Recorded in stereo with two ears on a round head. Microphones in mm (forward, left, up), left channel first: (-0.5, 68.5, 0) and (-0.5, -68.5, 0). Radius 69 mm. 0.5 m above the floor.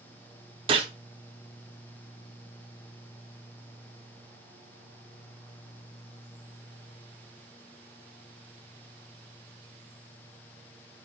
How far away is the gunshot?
About 0.8 m.